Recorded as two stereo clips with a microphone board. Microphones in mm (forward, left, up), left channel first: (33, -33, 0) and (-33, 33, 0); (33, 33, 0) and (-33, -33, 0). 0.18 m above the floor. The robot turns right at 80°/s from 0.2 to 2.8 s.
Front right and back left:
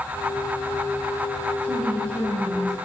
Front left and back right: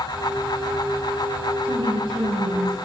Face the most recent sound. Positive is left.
turn(degrees=-65)